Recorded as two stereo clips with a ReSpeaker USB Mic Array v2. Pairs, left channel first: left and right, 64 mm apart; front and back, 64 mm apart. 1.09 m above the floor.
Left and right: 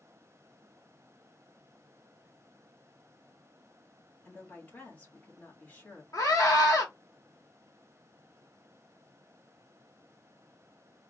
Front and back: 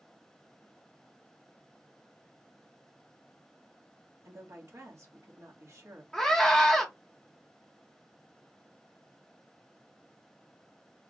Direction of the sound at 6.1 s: 80° left.